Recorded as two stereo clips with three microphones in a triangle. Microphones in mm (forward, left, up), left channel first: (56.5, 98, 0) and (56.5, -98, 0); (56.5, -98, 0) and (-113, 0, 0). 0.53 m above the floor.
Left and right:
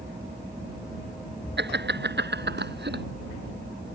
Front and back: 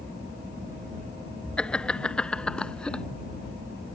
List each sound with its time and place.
1.6 s laughter: 115° right